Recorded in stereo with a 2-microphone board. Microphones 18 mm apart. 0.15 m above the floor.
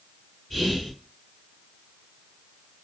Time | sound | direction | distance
0.5 | whispering | 20° left (ahead or behind) | 1.7 m